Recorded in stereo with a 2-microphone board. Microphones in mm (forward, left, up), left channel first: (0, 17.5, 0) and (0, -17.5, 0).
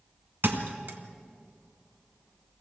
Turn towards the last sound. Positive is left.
turn(degrees=-70)  # may be behind; listen again after turning